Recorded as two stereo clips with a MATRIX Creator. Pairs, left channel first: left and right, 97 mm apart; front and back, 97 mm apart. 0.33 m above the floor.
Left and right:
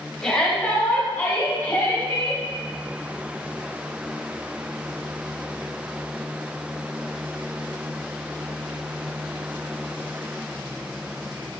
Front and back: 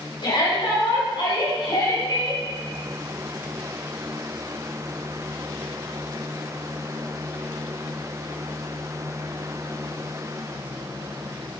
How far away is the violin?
No violin in this recording.